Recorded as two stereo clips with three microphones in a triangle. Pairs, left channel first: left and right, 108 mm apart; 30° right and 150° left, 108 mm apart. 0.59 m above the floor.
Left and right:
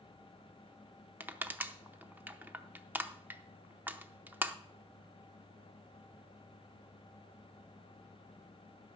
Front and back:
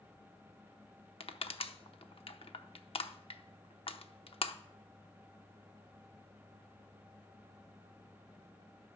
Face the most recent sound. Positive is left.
turn(degrees=-20)